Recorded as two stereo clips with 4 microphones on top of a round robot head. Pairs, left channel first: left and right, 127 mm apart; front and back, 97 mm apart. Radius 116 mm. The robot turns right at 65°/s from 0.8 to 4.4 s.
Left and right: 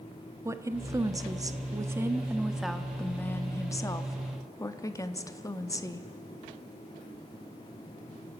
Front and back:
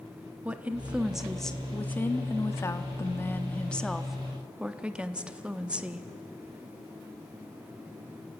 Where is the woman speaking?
125° right, 1.0 m; by 6.1 s 110° left, 1.0 m.